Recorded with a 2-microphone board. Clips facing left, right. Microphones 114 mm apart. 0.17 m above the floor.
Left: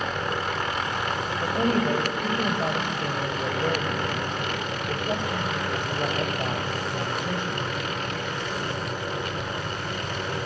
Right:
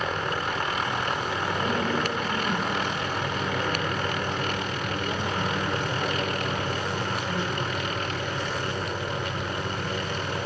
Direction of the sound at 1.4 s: 50° left (ahead or behind).